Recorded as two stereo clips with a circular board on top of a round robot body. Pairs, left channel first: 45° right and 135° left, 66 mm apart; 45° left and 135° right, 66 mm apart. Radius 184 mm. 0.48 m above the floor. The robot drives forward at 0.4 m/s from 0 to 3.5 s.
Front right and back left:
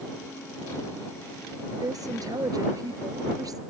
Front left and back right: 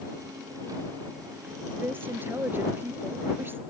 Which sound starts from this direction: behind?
A woman speaking, at 1.7 s.